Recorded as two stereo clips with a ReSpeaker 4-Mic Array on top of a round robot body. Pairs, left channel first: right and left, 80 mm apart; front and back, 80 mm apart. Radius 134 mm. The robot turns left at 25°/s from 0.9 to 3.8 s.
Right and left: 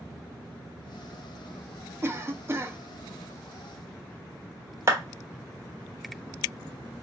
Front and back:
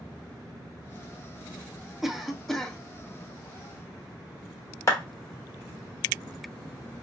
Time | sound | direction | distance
2.0 | a cough | 95° left | 0.9 m
4.9 | a clap | 45° left | 1.8 m